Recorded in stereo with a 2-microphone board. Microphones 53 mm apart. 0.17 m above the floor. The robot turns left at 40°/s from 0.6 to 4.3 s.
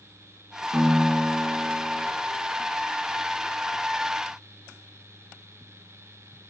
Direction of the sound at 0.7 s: 135° right.